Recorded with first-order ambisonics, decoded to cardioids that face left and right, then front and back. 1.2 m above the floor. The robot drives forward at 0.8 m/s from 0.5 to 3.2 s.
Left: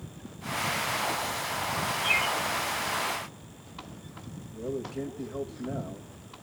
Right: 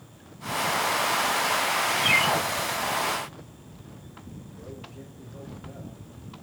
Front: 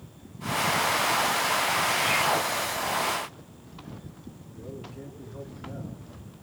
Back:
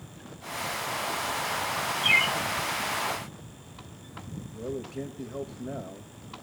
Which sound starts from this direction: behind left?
A man speaking, at 4.5 s.